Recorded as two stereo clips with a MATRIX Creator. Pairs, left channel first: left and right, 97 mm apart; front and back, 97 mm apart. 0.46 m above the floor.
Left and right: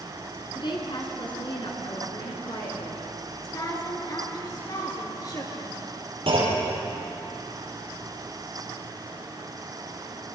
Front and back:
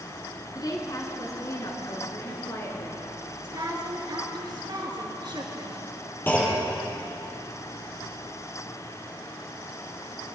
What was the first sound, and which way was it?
A woman speaking, 50° left.